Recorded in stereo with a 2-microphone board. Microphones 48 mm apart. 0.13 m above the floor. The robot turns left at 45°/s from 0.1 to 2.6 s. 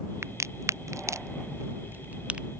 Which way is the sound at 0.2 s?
60° right (ahead or behind).